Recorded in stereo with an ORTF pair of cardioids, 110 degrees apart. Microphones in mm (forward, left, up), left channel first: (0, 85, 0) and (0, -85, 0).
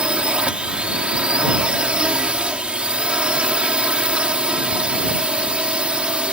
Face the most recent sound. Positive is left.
turn(degrees=-5)